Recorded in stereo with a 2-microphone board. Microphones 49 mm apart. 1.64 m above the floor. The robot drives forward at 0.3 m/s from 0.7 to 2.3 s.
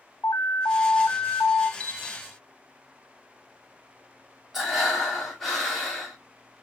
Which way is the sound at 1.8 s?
30° left (ahead or behind).